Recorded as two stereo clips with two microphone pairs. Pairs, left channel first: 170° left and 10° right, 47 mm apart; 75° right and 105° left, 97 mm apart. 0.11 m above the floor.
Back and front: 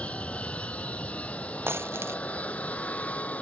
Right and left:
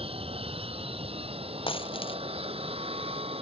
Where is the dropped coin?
50° right.